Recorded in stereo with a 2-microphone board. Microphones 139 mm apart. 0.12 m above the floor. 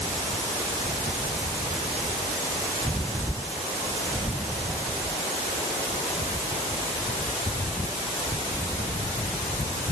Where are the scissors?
No scissors in this recording.